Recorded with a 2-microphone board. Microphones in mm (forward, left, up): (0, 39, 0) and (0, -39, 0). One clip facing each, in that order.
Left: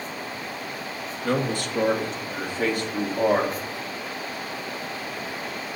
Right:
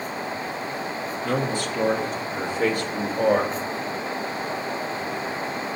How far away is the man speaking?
About 1.7 m.